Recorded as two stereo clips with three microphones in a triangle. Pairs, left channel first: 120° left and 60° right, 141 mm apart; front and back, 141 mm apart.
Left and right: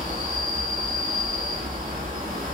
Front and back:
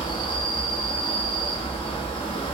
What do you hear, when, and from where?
0.0 s an insect: 50° right, 0.8 m